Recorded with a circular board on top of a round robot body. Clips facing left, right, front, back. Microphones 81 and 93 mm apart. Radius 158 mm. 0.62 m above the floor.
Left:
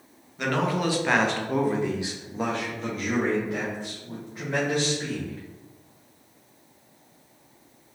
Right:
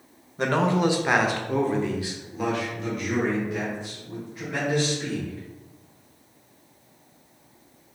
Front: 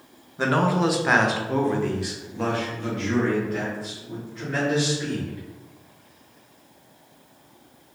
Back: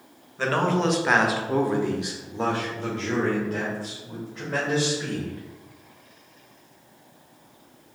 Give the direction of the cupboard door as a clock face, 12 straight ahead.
I don't hear a cupboard door.